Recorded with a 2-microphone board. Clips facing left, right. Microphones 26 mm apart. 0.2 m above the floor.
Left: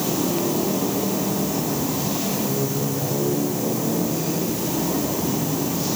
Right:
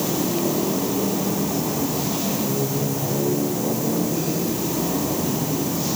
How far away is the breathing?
No breathing in this recording.